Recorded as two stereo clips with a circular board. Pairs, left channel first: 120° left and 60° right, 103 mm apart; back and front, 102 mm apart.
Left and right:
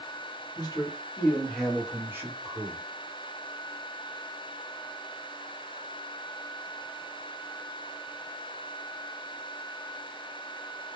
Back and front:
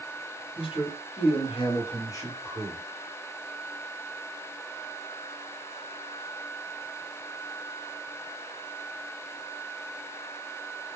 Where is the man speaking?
165° left, 1.0 m; by 2.8 s 105° right, 1.1 m.